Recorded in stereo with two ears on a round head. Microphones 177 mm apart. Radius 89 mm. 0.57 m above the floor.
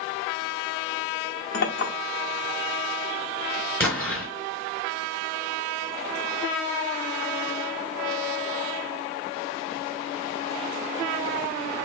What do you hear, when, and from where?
1.5 s a clink: 55° left (ahead or behind), 1.0 m
3.8 s an explosion: 10° left (ahead or behind), 1.8 m